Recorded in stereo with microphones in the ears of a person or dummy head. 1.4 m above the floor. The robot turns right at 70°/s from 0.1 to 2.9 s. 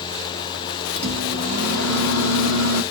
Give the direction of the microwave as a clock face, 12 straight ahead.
12 o'clock.